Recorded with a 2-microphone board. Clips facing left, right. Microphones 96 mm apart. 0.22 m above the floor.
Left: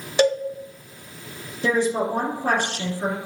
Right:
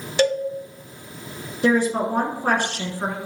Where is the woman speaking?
55° right (ahead or behind), 2.5 m.